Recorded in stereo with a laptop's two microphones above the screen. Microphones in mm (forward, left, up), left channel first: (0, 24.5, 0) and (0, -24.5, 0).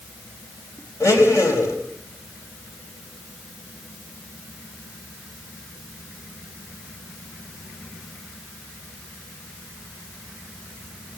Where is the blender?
75° left (ahead or behind), 4.5 m.